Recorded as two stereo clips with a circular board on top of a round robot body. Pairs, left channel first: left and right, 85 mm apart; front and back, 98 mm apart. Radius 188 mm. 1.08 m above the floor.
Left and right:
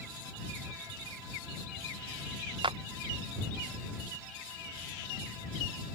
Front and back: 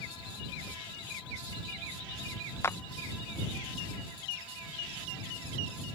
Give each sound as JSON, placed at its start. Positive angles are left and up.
{"t": 2.6, "sound": "a clap", "azimuth_deg": -65}